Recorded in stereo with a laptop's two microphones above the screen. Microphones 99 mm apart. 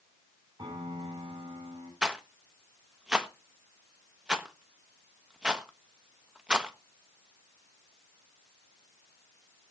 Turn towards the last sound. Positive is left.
turn(degrees=-5)  # may be behind; listen again after turning